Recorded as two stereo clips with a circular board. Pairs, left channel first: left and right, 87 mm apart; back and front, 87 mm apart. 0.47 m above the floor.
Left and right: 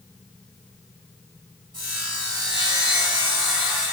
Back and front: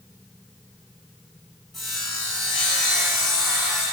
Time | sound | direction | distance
1.7 | sawing | 90° right | 1.4 m